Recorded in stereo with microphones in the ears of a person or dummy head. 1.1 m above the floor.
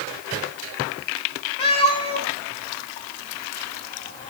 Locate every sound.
1.6 s a cat meowing: 30° left (ahead or behind), 1.0 m